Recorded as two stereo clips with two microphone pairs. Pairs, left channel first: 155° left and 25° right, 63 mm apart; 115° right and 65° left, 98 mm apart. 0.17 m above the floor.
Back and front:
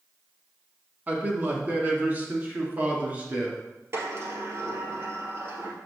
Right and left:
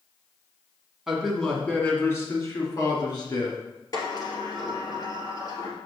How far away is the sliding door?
About 2 m.